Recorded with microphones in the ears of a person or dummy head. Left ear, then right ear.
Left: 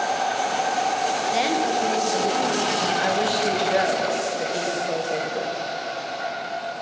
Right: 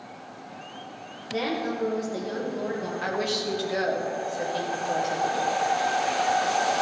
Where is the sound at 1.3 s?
40° left (ahead or behind), 1.6 m.